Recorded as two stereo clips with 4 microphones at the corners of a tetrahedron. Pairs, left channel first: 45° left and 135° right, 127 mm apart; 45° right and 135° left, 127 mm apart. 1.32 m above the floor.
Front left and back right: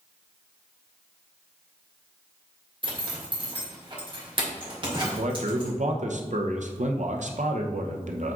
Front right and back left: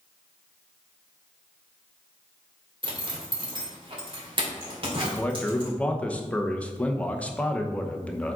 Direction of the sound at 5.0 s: 125° right.